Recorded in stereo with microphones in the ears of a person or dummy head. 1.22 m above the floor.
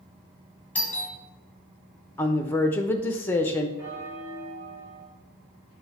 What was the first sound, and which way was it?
A doorbell, 10° left (ahead or behind).